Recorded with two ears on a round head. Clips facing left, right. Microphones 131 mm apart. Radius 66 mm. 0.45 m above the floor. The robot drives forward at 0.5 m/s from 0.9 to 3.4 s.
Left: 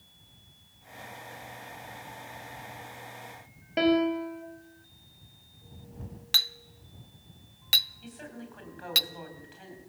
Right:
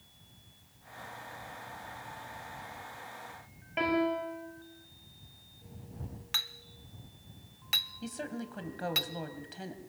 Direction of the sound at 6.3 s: 40° left (ahead or behind).